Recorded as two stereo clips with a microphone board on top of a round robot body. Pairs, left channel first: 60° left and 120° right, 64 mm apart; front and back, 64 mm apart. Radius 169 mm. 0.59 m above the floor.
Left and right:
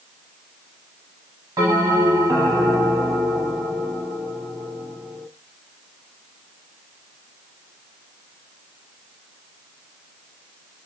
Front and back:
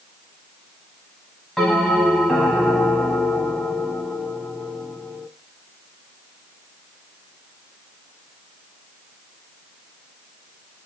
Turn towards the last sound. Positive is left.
turn(degrees=-85)